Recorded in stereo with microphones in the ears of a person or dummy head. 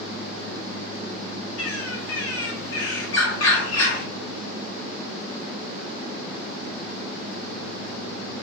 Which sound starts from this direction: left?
A bird, at 1.6 s.